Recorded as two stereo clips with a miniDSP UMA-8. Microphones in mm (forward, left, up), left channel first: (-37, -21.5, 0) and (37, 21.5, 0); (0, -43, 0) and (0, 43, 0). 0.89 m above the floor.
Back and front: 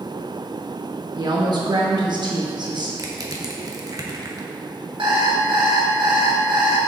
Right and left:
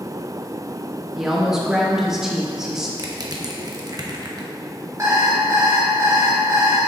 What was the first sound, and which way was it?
A woman speaking, 5° left.